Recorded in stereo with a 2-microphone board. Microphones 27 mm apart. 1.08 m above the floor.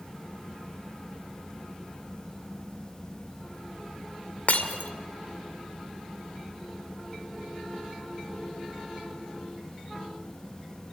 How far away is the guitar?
I don't hear a guitar.